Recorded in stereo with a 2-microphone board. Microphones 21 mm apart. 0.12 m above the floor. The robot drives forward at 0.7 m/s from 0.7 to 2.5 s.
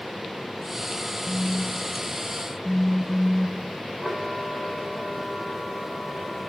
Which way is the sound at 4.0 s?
25° right (ahead or behind).